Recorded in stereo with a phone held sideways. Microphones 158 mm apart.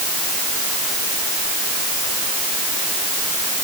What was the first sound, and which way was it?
Only background noise.